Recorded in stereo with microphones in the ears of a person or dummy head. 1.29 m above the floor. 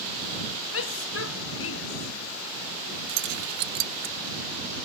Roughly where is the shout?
Left.